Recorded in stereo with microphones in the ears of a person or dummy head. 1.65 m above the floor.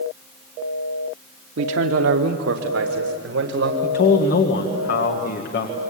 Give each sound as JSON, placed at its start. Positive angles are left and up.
{"t": 1.6, "sound": "a man speaking", "side_deg": -75, "distance_m": 0.9}
{"t": 3.8, "sound": "a man speaking", "side_deg": 60, "distance_m": 1.8}